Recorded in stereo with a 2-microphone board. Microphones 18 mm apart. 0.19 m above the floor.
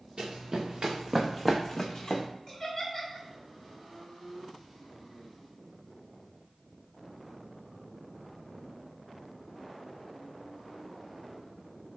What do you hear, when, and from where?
0.2 s running footsteps: 60° right (ahead or behind), 1.1 m; by 2.2 s 40° left (ahead or behind), 0.8 m
2.5 s laughter: 10° left (ahead or behind), 1.6 m